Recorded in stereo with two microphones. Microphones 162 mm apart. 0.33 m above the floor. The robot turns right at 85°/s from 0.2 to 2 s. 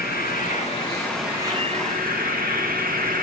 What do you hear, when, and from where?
0.0 s an insect: 95° left, 3.5 m; by 3.2 s 115° right, 3.5 m